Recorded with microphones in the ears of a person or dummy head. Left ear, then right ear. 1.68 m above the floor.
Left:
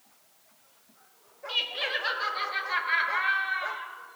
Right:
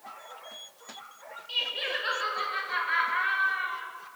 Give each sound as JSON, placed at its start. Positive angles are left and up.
{"t": 1.5, "sound": "laughter", "side_deg": 25, "distance_m": 2.0}